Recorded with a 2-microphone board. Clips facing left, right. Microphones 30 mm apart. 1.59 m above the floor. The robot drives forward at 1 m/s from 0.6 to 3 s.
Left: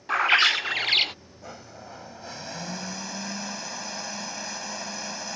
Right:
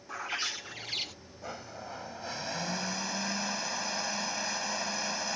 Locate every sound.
0.1 s a bird: 65° left (ahead or behind); by 1.1 s 50° left (ahead or behind)
1.4 s a blender: 10° right (ahead or behind); by 5.4 s 5° right (ahead or behind)